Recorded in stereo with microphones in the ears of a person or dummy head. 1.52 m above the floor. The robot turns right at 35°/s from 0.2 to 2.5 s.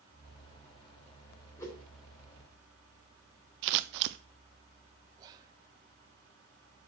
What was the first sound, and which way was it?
A whoosh, 15° left (ahead or behind).